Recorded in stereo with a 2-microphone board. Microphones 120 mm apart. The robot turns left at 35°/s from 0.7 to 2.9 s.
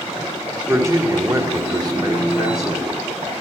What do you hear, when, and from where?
0.7 s a man speaking: 45° right, 1.3 m; by 3.0 s 120° right, 1.3 m